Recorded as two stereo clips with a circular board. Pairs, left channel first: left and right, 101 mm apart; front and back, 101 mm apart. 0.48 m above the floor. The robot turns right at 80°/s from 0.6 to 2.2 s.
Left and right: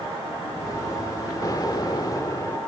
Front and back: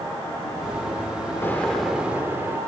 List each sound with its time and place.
1.4 s an explosion: 55° left; by 2.6 s 120° left